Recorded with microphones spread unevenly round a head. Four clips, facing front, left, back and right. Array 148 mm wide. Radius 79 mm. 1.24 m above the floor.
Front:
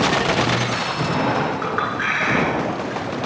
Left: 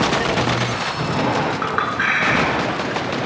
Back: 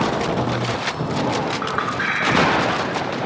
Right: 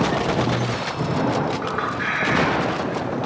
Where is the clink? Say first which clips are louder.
Left 4 dB, even; 90° left, 8.5 m.